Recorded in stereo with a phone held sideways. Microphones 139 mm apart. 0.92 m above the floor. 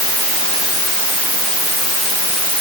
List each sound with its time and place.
Only background noise.